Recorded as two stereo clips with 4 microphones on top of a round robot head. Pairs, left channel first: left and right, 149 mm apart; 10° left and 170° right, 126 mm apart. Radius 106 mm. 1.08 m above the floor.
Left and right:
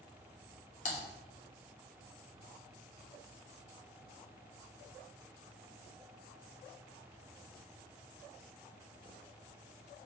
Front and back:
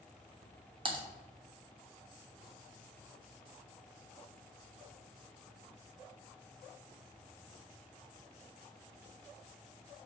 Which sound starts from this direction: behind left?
Typing on a keyboard, at 0.8 s.